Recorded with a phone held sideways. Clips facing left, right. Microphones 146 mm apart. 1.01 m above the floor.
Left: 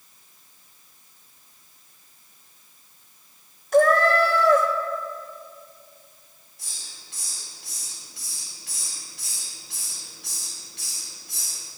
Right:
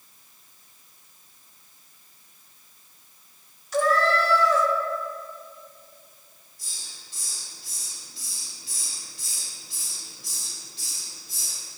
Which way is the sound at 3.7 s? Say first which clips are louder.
Left 5 dB; 55° left (ahead or behind).